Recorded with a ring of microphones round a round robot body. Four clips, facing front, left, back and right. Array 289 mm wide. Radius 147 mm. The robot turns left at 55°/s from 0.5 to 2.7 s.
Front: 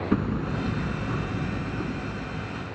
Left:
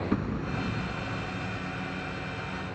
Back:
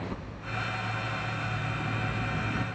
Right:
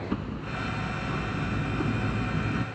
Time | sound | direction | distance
0.1 | hammering | 10° left | ?